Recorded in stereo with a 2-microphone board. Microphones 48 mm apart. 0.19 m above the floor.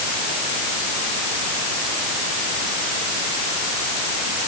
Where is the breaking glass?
I don't hear breaking glass.